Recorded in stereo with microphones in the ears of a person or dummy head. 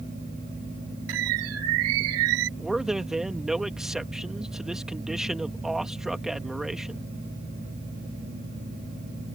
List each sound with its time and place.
1.1 s a bird: 80° right
2.6 s a man speaking: 5° right (ahead or behind)